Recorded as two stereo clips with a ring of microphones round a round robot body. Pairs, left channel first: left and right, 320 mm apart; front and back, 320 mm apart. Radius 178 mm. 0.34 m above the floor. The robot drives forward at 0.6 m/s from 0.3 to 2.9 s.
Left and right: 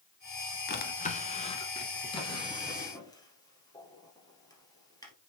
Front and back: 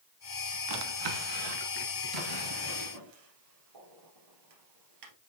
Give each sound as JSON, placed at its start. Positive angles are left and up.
{"t": 0.7, "sound": "a drawer", "azimuth_deg": 150, "distance_m": 0.9}